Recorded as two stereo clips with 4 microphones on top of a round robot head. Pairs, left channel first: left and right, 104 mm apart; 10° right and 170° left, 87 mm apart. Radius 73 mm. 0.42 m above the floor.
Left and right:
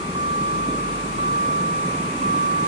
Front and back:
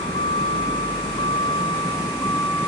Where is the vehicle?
45° right; by 2.7 s 90° right.